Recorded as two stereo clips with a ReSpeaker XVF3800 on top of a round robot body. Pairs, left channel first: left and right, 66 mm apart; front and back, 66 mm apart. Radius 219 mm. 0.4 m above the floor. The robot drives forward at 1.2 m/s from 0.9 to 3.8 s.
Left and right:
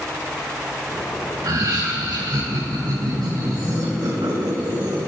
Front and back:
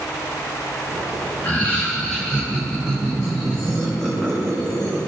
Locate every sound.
1.4 s laughter: 65° right, 3.5 m; by 5.0 s 120° right, 3.5 m